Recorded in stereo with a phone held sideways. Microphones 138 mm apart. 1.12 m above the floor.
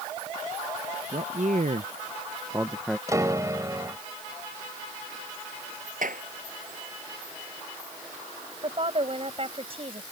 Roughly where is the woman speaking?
Right.